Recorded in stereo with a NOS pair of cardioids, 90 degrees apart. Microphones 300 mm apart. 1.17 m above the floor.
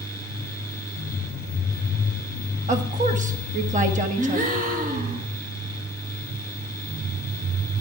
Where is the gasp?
30° right, 1.7 m.